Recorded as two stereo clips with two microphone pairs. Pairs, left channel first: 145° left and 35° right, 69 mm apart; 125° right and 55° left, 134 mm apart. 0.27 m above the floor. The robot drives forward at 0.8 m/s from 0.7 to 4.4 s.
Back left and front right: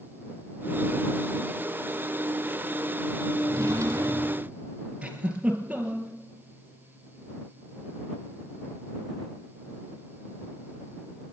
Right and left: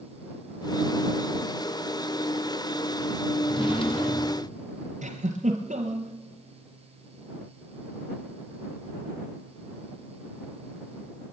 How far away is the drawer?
About 3.5 m.